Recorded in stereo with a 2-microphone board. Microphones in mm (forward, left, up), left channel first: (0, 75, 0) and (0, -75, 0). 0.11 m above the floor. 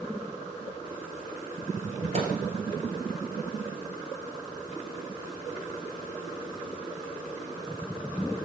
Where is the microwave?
45° right (ahead or behind), 1.9 m.